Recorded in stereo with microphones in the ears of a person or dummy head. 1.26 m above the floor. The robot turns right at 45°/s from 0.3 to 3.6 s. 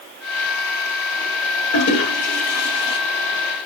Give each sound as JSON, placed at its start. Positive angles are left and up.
{"t": 1.7, "sound": "a toilet flushing", "side_deg": 80, "distance_m": 1.8}